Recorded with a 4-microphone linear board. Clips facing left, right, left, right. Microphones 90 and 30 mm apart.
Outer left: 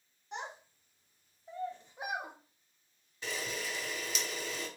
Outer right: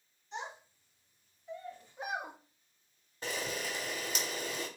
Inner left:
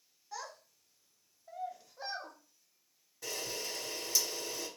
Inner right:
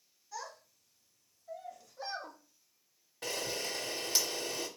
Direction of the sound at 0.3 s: 60° left (ahead or behind).